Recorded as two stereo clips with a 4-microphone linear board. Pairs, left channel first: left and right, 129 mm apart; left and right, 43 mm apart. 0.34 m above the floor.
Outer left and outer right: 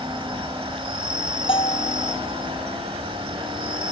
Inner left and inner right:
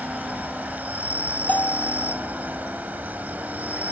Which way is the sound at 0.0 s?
45° right (ahead or behind).